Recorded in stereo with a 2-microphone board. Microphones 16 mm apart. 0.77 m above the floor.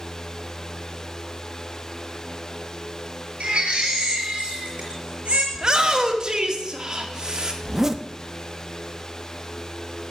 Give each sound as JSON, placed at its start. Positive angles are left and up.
{"t": 3.4, "sound": "a baby crying", "side_deg": -80, "distance_m": 5.5}
{"t": 5.5, "sound": "a shout", "side_deg": -45, "distance_m": 1.8}
{"t": 7.6, "sound": "a zipper", "side_deg": -25, "distance_m": 0.7}